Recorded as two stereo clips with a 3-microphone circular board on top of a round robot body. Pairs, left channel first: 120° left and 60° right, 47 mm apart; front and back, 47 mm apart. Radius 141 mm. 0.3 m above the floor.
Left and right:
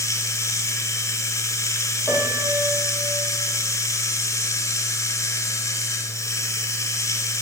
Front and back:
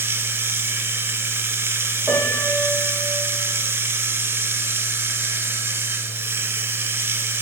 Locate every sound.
0.0 s running water: 135° left, 0.9 m
2.1 s a piano: 130° right, 8.5 m